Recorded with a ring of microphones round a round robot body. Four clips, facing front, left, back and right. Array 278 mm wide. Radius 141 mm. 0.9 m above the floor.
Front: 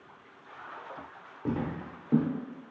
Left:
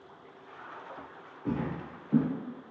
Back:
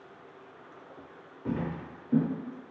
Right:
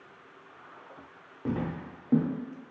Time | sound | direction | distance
1.4 | footsteps | 50° right | 1.5 m